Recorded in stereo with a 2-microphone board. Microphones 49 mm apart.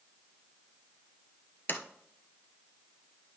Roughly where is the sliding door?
Left.